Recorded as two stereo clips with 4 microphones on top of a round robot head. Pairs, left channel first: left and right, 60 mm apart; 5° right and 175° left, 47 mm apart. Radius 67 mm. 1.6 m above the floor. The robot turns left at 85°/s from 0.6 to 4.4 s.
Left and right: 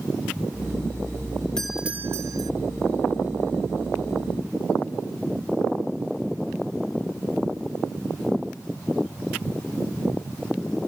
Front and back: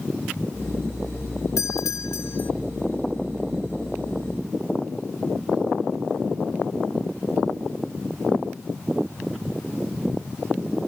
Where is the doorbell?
10° left; by 2.5 s 70° right.